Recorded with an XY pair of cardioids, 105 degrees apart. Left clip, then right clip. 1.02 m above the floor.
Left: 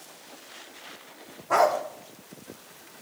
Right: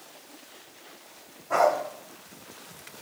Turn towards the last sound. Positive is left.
turn(degrees=60)